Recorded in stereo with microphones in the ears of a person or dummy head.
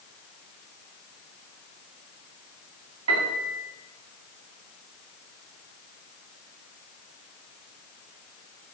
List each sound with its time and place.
3.1 s a piano: 80° right, 2.5 m